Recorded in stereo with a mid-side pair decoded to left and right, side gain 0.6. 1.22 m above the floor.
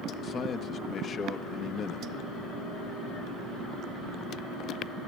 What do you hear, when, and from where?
0.2 s a man speaking: 45° left, 1.3 m